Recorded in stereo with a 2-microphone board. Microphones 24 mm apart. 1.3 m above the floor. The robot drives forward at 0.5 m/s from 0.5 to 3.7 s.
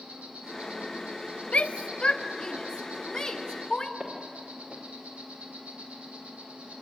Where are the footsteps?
45° right (ahead or behind), 5.5 m.